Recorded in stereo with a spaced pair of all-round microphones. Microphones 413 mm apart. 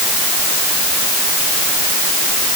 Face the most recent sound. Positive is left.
No sound to turn to.